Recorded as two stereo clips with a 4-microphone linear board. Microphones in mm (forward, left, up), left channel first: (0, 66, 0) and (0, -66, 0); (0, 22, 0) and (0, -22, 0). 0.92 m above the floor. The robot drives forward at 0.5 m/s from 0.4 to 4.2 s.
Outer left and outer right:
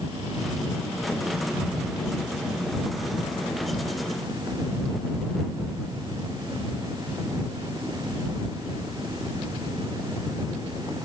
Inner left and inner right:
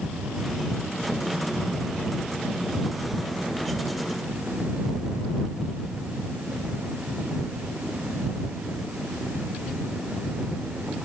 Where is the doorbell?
I don't hear a doorbell.